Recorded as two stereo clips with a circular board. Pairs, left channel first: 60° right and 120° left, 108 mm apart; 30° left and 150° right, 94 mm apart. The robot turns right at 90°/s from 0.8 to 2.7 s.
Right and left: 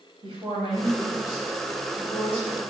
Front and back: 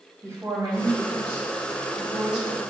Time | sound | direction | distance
0.2 | a woman speaking | 150° left | 3.5 m